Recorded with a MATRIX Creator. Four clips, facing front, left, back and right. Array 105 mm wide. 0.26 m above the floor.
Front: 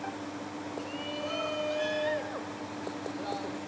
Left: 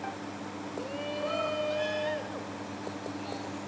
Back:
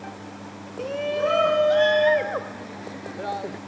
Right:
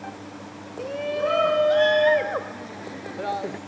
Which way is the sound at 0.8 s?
150° right.